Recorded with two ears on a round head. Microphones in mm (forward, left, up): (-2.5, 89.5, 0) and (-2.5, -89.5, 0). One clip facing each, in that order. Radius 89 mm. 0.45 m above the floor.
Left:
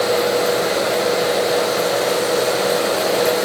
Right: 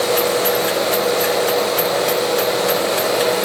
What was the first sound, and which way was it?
Only background noise.